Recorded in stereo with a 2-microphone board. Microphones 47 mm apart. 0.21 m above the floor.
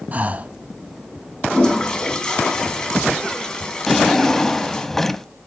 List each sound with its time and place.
0.1 s breathing: 35° right (ahead or behind), 0.6 m
1.5 s a toilet flushing: 20° left (ahead or behind), 1.9 m
3.9 s a drawer: 5° left (ahead or behind), 0.6 m